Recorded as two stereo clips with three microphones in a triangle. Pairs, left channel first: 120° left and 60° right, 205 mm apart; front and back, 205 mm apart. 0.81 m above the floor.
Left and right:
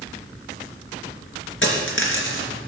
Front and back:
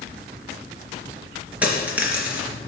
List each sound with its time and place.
1.6 s a dropped coin: 95° left, 3 m